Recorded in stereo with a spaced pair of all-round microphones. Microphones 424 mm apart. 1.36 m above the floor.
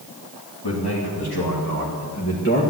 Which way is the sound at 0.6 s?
70° left (ahead or behind).